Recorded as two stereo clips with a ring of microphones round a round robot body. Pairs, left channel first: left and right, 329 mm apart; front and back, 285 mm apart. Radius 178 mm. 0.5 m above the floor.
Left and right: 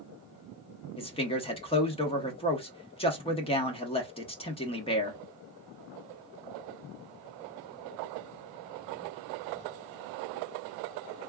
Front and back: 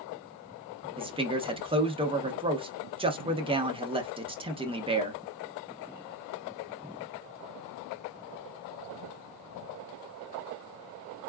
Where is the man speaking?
140° left, 0.9 m.